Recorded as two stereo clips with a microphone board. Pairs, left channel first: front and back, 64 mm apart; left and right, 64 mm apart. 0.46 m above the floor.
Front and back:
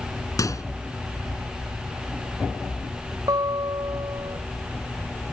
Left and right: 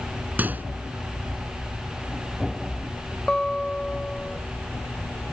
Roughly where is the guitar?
Behind.